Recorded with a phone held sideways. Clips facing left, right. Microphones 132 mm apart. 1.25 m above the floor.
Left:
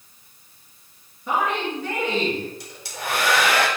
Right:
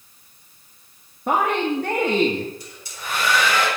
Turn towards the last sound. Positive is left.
turn(degrees=85)